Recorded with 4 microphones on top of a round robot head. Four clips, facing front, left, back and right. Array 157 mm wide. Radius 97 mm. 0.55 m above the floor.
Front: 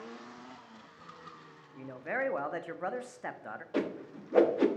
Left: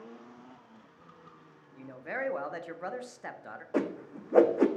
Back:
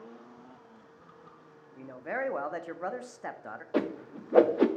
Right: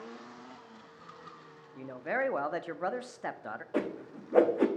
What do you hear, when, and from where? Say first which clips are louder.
1.8 s a man speaking: right 4 dB, even; 105° right, 0.7 m
3.7 s a whoosh: left 3 dB, back 3 dB; 160° left, 0.7 m